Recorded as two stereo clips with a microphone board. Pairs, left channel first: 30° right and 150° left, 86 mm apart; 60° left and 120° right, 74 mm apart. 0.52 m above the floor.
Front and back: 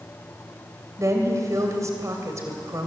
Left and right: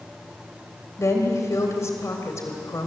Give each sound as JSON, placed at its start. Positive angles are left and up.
{"t": 1.0, "sound": "a woman speaking", "azimuth_deg": 105, "distance_m": 3.0}